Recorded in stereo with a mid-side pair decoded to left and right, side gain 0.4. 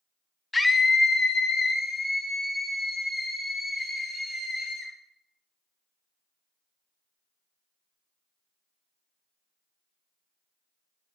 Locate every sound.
0.5 s a scream: 25° left, 0.5 m; by 4.9 s 60° left, 3.5 m